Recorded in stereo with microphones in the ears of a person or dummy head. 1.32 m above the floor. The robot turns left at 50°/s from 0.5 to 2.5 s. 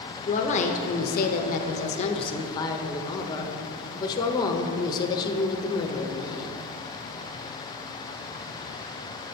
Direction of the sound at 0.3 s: 130° left.